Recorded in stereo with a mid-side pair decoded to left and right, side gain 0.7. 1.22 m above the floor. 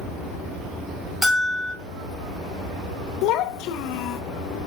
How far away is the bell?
About 2.5 m.